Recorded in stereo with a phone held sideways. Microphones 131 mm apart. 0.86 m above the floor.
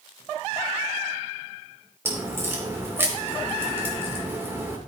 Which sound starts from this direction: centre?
A crack, at 2.0 s.